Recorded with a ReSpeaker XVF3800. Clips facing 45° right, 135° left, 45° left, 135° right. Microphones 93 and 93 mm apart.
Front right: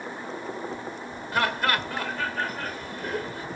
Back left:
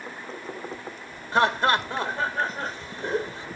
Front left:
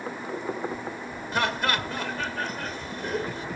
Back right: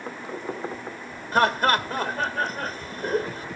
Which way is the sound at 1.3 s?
170° right.